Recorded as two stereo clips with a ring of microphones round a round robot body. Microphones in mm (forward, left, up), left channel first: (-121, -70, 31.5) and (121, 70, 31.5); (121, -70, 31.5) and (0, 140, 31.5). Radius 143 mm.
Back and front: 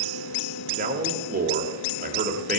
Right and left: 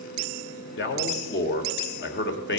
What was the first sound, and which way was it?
A man speaking, 25° right.